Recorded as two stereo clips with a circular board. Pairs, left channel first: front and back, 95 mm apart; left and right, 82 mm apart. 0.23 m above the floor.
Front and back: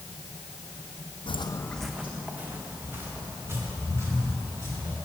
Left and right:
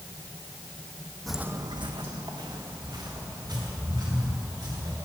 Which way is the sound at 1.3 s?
5° left.